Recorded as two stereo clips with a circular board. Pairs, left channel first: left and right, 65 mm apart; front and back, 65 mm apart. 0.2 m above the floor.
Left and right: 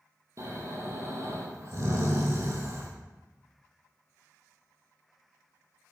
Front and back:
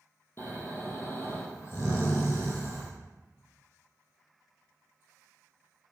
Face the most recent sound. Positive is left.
turn(degrees=-50)